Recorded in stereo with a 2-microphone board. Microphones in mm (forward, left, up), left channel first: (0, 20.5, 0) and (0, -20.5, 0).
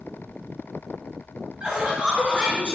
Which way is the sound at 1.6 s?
20° right (ahead or behind).